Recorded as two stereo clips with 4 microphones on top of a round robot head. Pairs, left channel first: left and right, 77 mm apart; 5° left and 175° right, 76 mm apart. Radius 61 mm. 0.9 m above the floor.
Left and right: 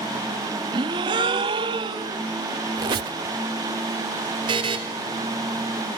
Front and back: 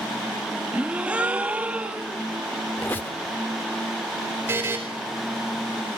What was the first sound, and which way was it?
A gasp, 95° right.